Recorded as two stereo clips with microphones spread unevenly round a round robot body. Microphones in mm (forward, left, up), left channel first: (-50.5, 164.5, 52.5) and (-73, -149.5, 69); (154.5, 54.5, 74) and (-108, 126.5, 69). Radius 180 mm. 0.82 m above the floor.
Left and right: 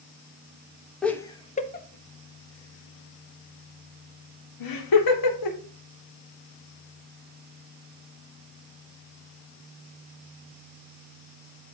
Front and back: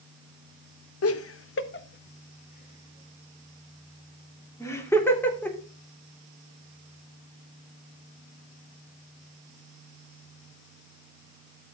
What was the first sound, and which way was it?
Laughter, straight ahead.